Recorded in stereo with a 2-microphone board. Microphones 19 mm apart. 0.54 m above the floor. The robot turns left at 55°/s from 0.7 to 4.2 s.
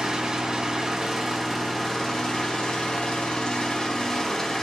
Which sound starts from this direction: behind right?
An engine running, at 0.0 s.